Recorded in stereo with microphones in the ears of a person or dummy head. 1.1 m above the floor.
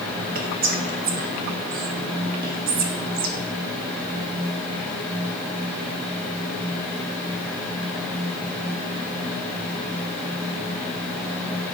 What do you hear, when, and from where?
0.3 s whispering: 40° right (ahead or behind), 0.7 m